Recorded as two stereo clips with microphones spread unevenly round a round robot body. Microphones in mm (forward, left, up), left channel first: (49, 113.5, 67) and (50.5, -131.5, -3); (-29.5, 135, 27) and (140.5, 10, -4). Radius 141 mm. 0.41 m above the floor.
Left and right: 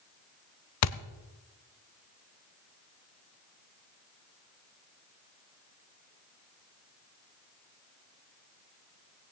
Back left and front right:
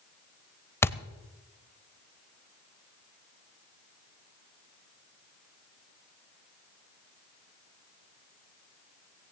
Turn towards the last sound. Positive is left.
turn(degrees=60)